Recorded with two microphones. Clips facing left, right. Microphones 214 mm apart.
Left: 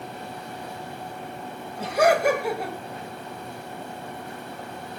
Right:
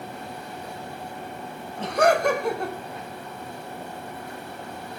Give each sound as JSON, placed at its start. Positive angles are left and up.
{"t": 1.8, "sound": "laughter", "side_deg": 10, "distance_m": 2.0}